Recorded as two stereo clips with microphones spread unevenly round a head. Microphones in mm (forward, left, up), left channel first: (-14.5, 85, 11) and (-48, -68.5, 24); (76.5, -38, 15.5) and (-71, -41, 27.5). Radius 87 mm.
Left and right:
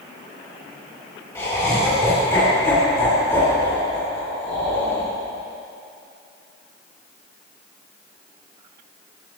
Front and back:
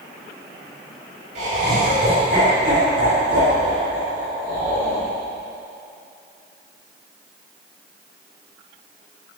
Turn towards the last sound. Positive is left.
turn(degrees=150)